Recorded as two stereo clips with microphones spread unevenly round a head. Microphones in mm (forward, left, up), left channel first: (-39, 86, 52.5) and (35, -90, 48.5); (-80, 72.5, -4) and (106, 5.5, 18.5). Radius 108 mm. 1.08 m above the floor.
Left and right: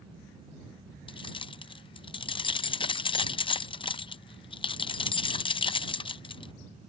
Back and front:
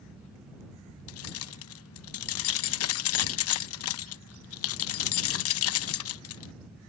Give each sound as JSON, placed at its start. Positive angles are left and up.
{"t": 1.1, "sound": "keys jangling", "azimuth_deg": 180}